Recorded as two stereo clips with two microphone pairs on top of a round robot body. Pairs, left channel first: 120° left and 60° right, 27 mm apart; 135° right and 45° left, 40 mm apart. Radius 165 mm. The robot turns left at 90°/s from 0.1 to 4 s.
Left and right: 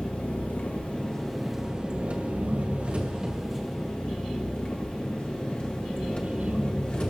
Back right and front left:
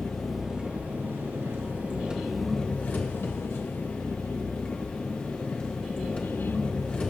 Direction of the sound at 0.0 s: 155° left.